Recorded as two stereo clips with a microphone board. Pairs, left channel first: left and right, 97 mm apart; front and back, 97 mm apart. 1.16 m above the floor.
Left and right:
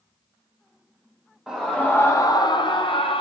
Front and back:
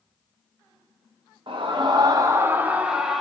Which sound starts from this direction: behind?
A scream, at 1.5 s.